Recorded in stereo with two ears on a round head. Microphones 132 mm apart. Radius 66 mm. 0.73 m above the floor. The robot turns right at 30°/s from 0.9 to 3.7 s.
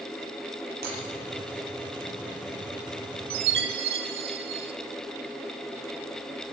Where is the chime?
75° right (ahead or behind), 1.8 m.